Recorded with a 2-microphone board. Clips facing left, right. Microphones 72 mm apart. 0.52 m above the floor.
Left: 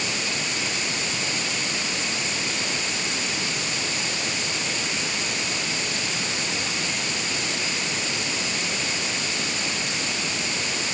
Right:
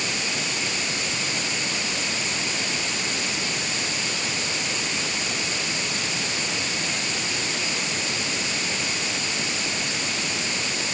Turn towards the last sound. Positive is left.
No sound to turn to.